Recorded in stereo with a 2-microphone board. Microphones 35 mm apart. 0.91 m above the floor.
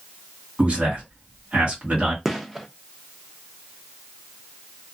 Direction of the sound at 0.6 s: 35° right (ahead or behind).